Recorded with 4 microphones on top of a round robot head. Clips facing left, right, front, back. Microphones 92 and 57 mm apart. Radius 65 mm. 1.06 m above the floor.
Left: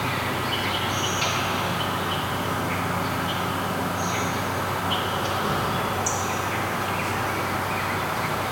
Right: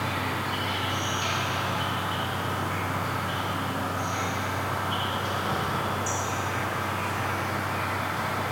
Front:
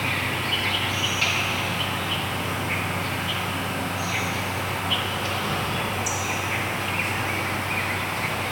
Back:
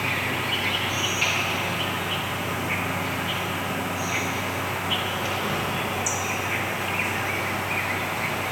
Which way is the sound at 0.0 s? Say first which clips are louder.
Left 3 dB, even; 100° left.